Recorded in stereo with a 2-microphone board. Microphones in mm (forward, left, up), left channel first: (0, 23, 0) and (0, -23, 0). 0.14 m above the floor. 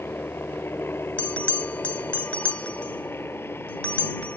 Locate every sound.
0.0 s a helicopter: 55° left (ahead or behind)
1.2 s a bell: 30° left (ahead or behind)